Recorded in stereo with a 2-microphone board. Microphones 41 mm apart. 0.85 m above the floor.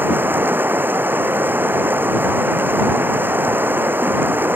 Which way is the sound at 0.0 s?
55° right (ahead or behind).